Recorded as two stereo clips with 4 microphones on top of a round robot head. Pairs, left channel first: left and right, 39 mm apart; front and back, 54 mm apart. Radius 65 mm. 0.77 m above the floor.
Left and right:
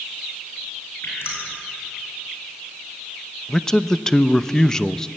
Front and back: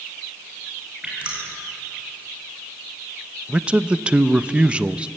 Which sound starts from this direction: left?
Dripping, at 1.0 s.